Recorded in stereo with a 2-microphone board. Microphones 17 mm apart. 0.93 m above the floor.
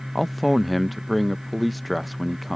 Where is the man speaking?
Centre (ahead or behind).